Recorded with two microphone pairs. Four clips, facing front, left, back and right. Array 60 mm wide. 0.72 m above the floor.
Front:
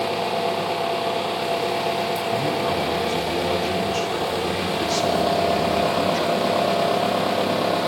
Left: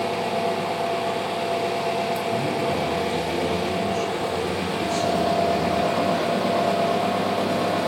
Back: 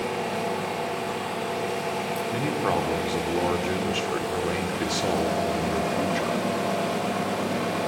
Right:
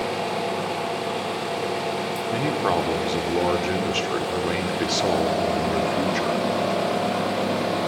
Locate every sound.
0.0 s an engine running: 10° left, 7 m
2.3 s a man speaking: 115° right, 2.5 m